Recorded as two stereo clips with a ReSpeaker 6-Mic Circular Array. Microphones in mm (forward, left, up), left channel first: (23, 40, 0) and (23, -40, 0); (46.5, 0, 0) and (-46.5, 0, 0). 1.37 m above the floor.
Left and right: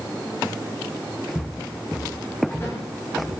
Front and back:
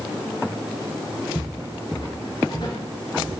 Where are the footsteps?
35° left, 7 m; by 3.4 s 30° left, 5 m.